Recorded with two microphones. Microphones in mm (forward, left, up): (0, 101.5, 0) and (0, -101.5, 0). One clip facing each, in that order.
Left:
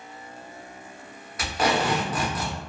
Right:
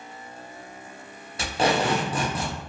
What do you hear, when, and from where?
1.4 s tape being pulled: 30° right (ahead or behind), 0.7 m